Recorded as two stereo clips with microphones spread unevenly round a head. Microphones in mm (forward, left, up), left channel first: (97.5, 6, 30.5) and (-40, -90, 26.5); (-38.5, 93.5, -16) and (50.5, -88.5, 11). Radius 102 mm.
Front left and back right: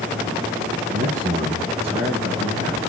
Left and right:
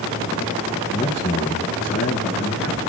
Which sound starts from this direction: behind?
A man speaking, at 0.9 s.